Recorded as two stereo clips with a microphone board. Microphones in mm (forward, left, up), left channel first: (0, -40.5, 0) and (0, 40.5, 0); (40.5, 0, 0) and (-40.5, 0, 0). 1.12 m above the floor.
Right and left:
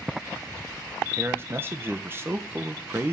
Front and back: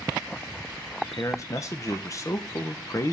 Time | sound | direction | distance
1.0 | a man speaking | 40° left | 0.8 m